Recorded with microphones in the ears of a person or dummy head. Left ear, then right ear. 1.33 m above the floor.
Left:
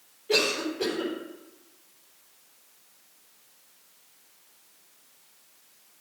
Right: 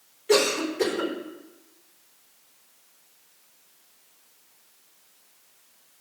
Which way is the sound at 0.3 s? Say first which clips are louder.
Right 3 dB; 60° right (ahead or behind).